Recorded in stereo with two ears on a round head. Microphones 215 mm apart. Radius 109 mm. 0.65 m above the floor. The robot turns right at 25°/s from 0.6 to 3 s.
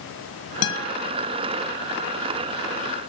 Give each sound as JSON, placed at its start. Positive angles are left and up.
{"t": 0.6, "sound": "a guitar", "side_deg": 70, "distance_m": 1.2}